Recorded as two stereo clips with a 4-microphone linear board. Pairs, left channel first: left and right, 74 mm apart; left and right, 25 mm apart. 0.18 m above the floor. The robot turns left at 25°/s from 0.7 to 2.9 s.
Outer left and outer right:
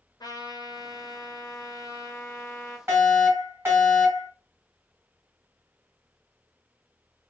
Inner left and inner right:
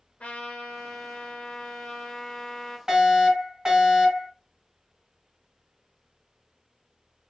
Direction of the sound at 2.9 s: 35° right (ahead or behind).